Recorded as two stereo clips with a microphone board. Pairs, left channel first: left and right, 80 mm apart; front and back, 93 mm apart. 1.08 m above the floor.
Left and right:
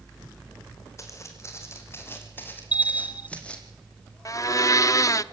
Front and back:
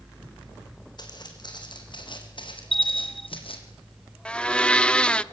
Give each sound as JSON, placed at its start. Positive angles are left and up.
{"t": 1.0, "sound": "footsteps", "azimuth_deg": 40, "distance_m": 4.5}
{"t": 2.7, "sound": "a bell", "azimuth_deg": 90, "distance_m": 0.6}
{"t": 4.2, "sound": "a blender", "azimuth_deg": 75, "distance_m": 0.7}